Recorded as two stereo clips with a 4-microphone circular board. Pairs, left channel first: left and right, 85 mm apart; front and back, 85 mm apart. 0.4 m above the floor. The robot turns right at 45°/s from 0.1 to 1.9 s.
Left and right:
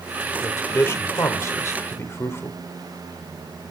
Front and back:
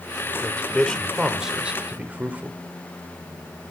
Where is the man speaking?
55° left, 0.9 m; by 2.6 s 120° left, 0.9 m.